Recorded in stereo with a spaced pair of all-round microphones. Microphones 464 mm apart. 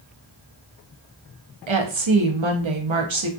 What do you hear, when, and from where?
1.7 s a woman speaking: 75° right (ahead or behind), 0.7 m